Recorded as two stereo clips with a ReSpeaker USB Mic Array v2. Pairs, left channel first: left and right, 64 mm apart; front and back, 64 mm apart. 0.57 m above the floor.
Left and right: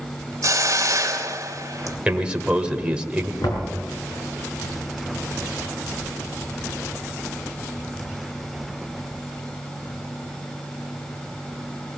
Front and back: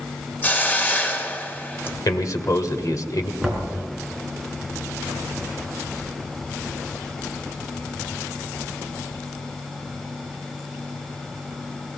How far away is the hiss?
About 2 m.